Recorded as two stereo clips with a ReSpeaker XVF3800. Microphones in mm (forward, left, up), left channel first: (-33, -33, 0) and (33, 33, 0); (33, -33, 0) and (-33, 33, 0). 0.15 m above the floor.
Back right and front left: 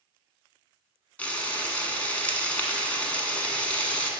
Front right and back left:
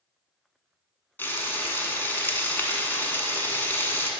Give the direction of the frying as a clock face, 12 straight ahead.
3 o'clock.